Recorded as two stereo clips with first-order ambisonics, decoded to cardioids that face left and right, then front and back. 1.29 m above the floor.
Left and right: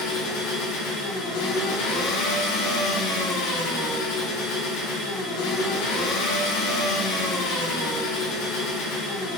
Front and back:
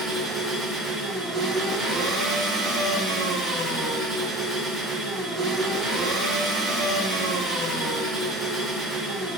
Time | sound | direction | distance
0.0 | an engine running | 105° left | 5 m